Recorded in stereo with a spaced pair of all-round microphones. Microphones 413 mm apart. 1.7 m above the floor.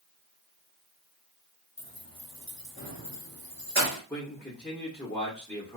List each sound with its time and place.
1.8 s keys jangling: 30° left (ahead or behind), 1.1 m; by 4.0 s 20° left (ahead or behind), 1.1 m
4.1 s a man speaking: 5° left (ahead or behind), 0.8 m